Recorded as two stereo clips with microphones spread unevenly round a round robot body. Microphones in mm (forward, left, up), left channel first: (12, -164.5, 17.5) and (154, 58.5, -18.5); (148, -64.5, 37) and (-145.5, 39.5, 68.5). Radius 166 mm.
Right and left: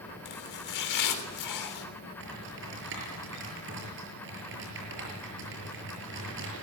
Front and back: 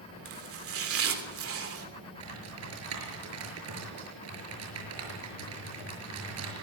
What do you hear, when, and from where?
0.2 s chopping: 155° right, 3.5 m
2.2 s typing on a keyboard: 115° left, 6 m